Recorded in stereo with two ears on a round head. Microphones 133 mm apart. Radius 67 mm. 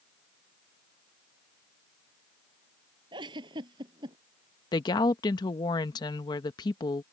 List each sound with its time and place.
3.1 s a giggle: 30° right (ahead or behind)
4.7 s a woman speaking: 30° left (ahead or behind)